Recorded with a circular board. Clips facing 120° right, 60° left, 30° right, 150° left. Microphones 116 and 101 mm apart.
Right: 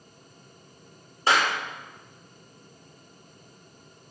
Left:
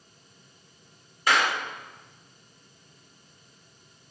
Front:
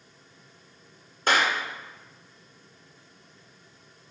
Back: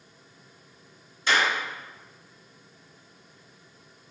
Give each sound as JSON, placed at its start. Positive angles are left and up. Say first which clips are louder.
{"t": 1.3, "sound": "a clap", "louder": "right 1 dB, front 1 dB", "azimuth_deg": -65, "distance_m": 2.0}